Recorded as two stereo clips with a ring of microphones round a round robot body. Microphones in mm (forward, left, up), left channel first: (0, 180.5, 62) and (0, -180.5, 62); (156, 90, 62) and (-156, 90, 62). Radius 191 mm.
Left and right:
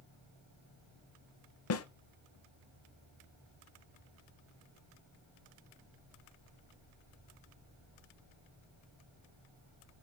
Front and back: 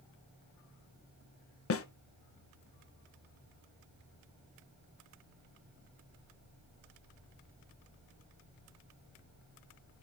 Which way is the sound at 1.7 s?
45° left.